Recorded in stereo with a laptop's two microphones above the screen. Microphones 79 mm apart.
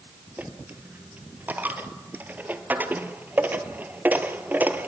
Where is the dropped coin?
25° right (ahead or behind), 1.1 m.